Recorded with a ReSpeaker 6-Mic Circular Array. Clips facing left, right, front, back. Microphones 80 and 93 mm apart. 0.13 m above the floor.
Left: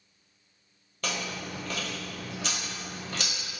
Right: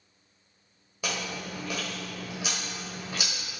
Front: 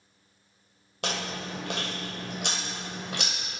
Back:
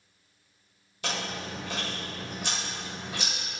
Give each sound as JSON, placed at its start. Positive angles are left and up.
{"t": 1.0, "sound": "chewing", "azimuth_deg": -10, "distance_m": 0.9}